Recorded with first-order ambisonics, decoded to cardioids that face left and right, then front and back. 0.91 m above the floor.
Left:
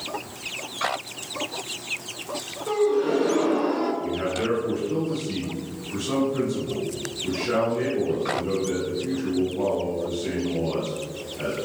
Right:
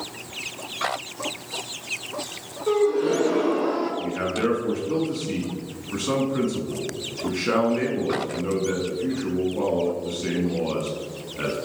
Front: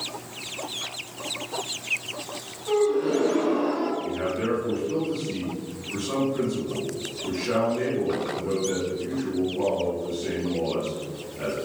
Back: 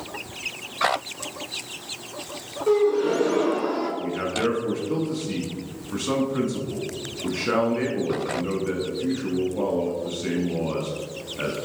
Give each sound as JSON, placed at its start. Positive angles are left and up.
{"t": 2.7, "sound": "a gasp", "azimuth_deg": -175, "distance_m": 1.5}
{"t": 4.0, "sound": "a man speaking", "azimuth_deg": -135, "distance_m": 1.1}